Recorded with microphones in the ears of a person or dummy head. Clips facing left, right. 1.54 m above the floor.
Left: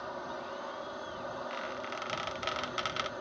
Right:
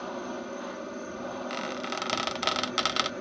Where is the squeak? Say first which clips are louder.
Right 6 dB; 55° right (ahead or behind).